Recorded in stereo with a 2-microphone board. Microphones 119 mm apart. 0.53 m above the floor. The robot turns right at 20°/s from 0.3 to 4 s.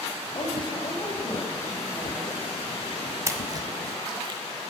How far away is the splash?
About 0.9 m.